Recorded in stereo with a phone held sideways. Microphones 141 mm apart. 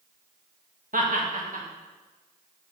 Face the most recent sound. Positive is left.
turn(degrees=-75)  # may be behind; listen again after turning